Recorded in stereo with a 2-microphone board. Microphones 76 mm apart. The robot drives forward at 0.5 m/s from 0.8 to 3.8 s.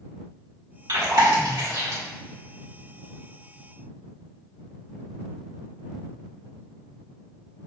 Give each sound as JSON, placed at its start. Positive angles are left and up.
{"t": 0.9, "sound": "chewing", "side_deg": -55, "distance_m": 1.7}